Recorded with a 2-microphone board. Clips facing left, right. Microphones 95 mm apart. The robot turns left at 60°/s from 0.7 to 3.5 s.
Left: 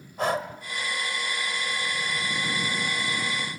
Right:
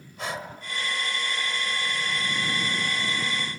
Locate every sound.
0.2 s breathing: 50° left (ahead or behind), 1.4 m